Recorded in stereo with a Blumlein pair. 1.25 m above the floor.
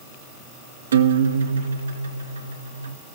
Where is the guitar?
65° right, 1.4 m.